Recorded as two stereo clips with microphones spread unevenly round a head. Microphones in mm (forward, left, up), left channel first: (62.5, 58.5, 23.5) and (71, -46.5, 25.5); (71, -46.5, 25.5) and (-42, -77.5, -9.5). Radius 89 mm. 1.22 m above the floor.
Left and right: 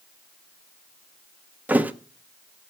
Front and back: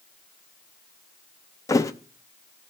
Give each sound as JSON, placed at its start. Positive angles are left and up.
{"t": 1.7, "sound": "a thud", "azimuth_deg": -15, "distance_m": 0.7}